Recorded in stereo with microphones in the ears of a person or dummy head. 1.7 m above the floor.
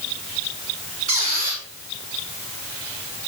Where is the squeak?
40° right (ahead or behind), 3.5 m.